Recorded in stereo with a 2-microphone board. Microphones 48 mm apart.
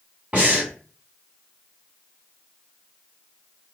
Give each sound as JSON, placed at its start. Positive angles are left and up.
{"t": 0.3, "sound": "breathing", "side_deg": -30, "distance_m": 2.5}